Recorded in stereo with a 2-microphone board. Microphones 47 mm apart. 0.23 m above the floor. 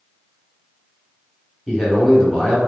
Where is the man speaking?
15° left (ahead or behind), 1.0 m.